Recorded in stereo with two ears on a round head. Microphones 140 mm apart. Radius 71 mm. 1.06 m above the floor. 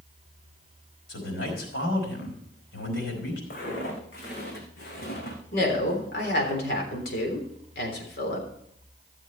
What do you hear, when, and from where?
1.1 s a man speaking: 85° left, 5 m
3.5 s footsteps: 65° left (ahead or behind), 4 m
5.5 s a woman speaking: 65° left (ahead or behind), 3.5 m